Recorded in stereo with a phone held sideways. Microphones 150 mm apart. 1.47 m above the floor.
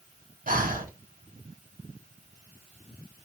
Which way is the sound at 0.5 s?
65° right (ahead or behind).